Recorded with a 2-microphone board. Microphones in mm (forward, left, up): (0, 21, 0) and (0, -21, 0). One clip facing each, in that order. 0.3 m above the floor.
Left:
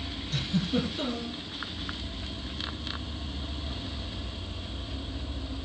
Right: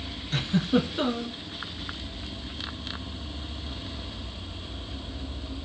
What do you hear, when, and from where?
0.3 s a giggle: 45° right (ahead or behind), 2.5 m